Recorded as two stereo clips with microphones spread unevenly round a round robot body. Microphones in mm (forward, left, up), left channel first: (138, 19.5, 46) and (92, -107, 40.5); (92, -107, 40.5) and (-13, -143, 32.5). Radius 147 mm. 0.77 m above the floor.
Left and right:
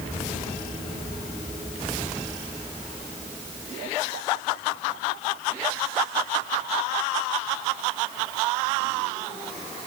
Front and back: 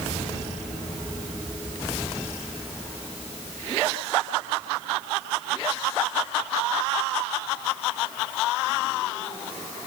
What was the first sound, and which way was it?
Only background noise.